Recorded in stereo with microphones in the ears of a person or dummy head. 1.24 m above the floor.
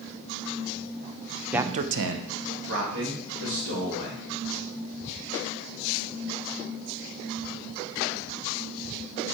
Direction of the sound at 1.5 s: 5° right (ahead or behind).